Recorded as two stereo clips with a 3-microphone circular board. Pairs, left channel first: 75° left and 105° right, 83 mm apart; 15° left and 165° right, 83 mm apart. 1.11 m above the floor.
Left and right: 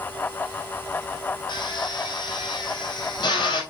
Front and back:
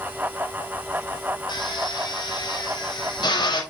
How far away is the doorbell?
No doorbell in this recording.